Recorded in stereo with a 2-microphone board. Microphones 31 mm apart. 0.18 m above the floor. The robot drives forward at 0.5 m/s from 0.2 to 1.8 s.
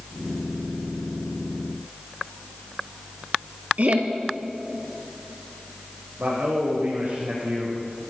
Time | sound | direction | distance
3.8 | laughter | 55° right (ahead or behind) | 3.5 m
6.2 | a man speaking | 65° right (ahead or behind) | 8.5 m